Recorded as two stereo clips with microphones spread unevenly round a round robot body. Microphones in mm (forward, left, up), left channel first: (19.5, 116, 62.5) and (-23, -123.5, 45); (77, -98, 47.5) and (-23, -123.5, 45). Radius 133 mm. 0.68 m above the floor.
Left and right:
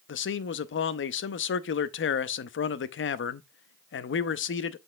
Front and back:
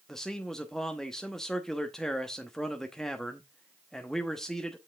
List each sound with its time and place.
0.1 s a man speaking: 100° left, 0.7 m